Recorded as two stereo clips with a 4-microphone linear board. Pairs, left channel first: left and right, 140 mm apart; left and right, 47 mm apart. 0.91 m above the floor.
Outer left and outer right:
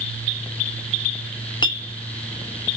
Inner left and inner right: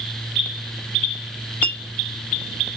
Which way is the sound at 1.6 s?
35° left (ahead or behind).